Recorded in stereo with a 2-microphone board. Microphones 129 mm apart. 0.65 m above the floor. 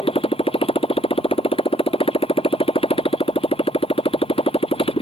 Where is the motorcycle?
45° left (ahead or behind).